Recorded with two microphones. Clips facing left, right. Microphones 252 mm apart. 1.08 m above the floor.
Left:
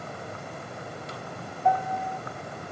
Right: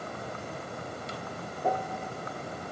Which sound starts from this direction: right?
A piano, at 1.6 s.